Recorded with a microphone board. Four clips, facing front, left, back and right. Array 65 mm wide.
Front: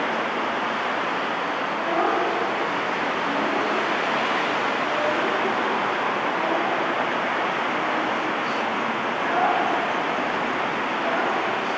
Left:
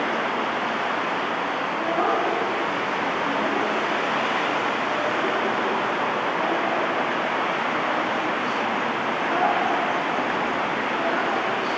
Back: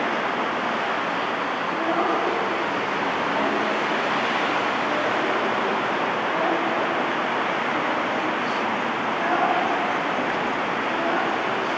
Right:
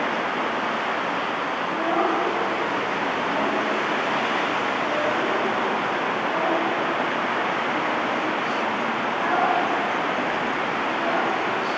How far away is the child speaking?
About 6.5 m.